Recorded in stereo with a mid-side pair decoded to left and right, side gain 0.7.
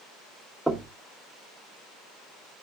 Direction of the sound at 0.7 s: 5° right.